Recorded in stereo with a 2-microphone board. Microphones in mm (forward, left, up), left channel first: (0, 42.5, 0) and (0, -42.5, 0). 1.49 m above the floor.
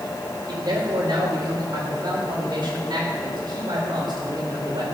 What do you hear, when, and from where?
0.5 s a man speaking: 55° right (ahead or behind), 4.5 m